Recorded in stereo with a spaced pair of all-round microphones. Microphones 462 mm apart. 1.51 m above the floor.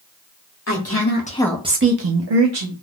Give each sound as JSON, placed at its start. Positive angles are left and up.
{"t": 0.7, "sound": "a woman speaking", "side_deg": 35, "distance_m": 1.1}